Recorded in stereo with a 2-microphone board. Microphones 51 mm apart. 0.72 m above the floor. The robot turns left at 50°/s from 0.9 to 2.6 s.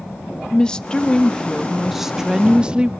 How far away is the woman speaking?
About 0.5 m.